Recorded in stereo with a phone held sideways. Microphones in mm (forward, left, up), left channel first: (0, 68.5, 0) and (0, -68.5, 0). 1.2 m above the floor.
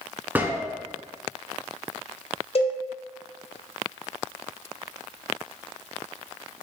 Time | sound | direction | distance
0.3 | a gunshot | 15° right (ahead or behind) | 0.5 m
2.5 | a cowbell | 50° left (ahead or behind) | 1.3 m